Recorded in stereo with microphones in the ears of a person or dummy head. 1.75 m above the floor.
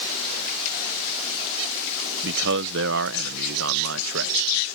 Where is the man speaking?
65° right (ahead or behind).